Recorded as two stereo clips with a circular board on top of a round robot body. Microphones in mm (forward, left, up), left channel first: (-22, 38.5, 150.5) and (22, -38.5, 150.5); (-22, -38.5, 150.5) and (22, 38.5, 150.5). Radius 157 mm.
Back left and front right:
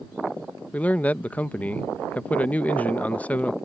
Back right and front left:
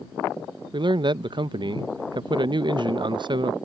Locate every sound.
0.7 s a man speaking: 50° left